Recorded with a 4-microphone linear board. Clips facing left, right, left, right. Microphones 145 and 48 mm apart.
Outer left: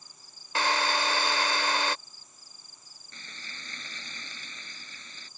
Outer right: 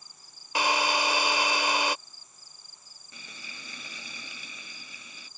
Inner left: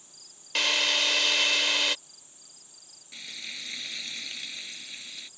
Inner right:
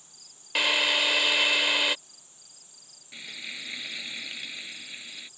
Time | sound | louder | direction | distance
0.6 | a drill | outer right 1 dB, inner right 2 dB | 15° right (ahead or behind) | ?
3.1 | frying | even, inner right 2 dB | 10° right (ahead or behind) | ?